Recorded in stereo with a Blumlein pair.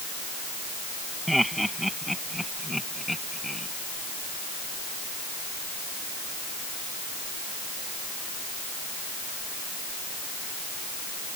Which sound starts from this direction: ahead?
Laughter, at 1.3 s.